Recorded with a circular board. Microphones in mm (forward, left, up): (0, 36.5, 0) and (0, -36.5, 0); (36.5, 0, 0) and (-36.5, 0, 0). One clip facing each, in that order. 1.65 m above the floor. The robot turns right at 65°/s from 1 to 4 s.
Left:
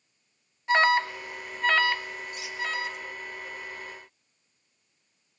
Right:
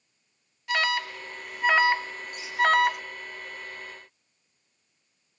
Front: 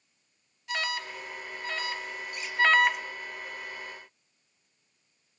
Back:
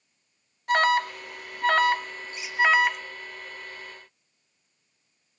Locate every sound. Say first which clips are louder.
0.7 s an alarm: left 5 dB, back 12 dB; 150° left, 0.6 m; by 3.0 s 80° right, 0.6 m
2.4 s a squeak: left 1 dB, even; 95° left, 3 m; by 2.6 s 105° left, 3 m